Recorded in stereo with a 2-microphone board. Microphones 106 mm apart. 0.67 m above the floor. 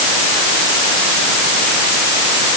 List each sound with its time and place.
Only background noise.